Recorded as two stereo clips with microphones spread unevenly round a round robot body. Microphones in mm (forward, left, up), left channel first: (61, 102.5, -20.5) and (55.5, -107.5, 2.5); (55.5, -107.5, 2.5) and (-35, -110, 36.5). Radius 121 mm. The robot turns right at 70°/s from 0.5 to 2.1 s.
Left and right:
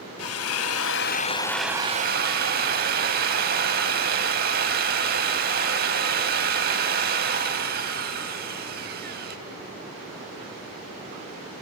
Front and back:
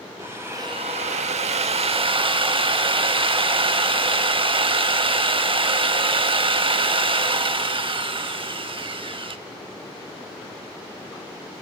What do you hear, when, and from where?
0.2 s a drill: 100° left, 2 m; by 9.4 s 150° right, 2 m